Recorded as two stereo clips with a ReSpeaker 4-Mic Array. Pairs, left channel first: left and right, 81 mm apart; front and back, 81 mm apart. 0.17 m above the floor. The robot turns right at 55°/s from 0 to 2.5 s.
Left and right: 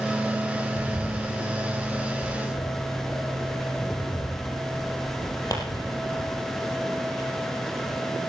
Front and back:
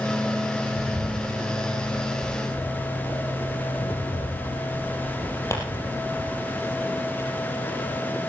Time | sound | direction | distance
0.8 | a bird | 45° right | 4.5 m